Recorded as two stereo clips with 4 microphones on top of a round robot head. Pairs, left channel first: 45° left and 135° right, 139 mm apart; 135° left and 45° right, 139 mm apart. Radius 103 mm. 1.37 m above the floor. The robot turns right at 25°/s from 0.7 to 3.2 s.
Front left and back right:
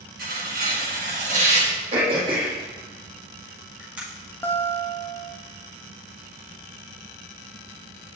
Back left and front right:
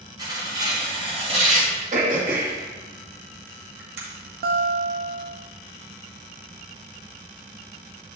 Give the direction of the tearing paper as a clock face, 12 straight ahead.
4 o'clock.